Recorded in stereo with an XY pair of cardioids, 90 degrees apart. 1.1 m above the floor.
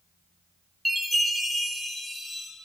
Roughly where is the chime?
Ahead.